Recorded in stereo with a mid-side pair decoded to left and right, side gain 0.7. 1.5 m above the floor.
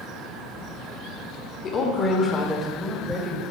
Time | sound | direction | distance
1.6 | a woman speaking | 40° left | 1.5 m